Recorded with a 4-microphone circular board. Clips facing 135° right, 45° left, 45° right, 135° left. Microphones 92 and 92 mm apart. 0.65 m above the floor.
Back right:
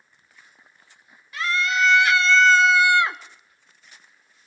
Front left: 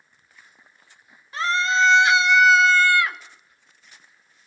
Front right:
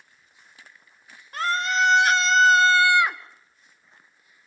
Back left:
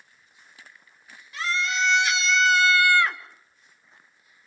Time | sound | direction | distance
1.3 | a scream | 10° right | 2 m